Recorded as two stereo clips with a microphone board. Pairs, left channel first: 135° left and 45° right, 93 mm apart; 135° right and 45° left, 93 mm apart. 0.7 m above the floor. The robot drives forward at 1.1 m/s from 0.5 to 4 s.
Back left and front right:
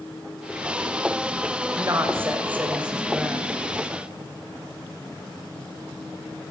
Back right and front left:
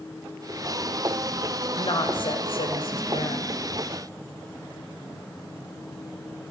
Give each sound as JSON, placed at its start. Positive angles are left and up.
{"t": 1.8, "sound": "a woman speaking", "azimuth_deg": -105, "distance_m": 3.0}